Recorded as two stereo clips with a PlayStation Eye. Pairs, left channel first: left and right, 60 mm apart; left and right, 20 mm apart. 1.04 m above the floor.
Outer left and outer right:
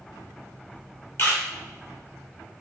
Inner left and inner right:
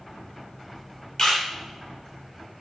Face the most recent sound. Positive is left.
turn(degrees=45)  # may be behind; listen again after turning